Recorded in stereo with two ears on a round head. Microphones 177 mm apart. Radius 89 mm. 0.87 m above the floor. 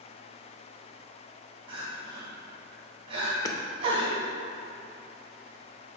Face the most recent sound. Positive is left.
turn(degrees=20)  # may be behind; listen again after turning